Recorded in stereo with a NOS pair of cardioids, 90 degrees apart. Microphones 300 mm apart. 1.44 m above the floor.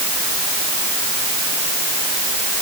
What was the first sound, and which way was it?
Only background noise.